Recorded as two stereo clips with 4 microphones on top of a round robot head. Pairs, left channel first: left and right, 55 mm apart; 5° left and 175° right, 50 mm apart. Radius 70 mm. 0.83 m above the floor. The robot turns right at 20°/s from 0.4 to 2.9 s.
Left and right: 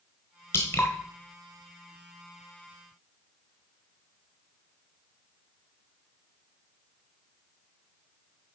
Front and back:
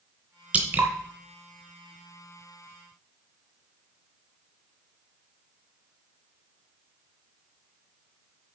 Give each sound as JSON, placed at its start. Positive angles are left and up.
{"t": 0.5, "sound": "dripping", "azimuth_deg": 145, "distance_m": 0.6}